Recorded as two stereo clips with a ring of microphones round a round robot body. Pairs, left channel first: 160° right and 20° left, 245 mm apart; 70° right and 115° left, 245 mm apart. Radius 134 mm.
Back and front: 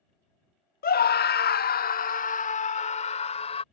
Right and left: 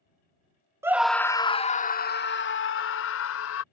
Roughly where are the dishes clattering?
I don't hear dishes clattering.